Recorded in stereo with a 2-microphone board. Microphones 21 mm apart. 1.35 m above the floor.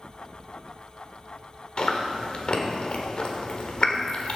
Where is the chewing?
45° left (ahead or behind), 1.3 m.